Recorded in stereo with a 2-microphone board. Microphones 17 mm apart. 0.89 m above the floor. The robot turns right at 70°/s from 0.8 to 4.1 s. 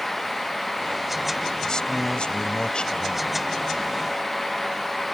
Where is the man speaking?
35° left; by 3.3 s 155° left.